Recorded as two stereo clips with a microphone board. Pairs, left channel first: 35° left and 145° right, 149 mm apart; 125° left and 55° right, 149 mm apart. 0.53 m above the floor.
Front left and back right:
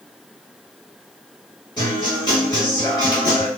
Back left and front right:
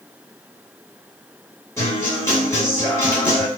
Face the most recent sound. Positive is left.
turn(degrees=65)